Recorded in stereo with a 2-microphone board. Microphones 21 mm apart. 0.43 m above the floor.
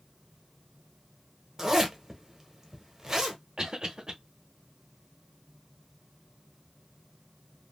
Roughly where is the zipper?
Right.